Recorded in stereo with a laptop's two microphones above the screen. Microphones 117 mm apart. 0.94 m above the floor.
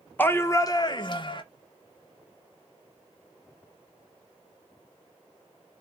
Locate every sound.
0.2 s a shout: 15° left (ahead or behind), 0.5 m; by 1.4 s 45° left (ahead or behind), 0.6 m